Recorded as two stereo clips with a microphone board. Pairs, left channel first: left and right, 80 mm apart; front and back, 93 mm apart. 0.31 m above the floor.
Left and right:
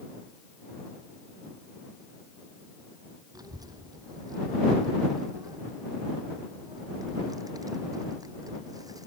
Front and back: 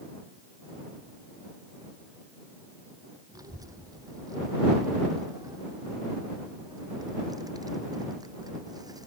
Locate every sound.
3.3 s a child speaking: 130° right